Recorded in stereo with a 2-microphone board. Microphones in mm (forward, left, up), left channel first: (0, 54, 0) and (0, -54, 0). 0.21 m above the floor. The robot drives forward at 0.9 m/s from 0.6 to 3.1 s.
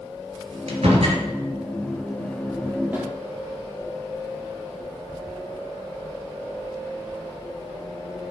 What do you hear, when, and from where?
0.7 s a door slam: 70° right (ahead or behind), 3 m; by 1.2 s 65° right (ahead or behind), 3 m
2.9 s a snare drum: 15° right (ahead or behind), 3.5 m